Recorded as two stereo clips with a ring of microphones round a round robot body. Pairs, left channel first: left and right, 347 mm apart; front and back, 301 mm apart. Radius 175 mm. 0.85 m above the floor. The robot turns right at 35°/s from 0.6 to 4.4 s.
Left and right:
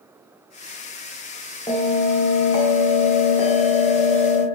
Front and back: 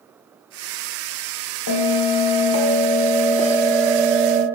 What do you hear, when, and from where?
1.7 s a bell: 15° left, 0.5 m; by 4.5 s 110° left, 0.5 m